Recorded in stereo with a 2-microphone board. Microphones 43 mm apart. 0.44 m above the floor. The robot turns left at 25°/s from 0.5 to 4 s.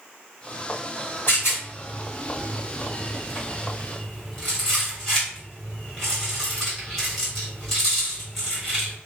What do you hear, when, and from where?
1.3 s a rattle: 55° left (ahead or behind), 2.0 m; by 8.9 s 5° left (ahead or behind), 2.0 m